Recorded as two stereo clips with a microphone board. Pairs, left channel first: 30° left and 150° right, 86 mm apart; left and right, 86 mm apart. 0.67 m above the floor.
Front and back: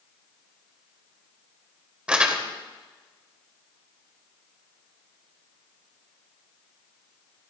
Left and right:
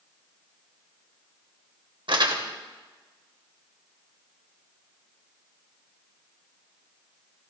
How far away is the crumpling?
About 2 m.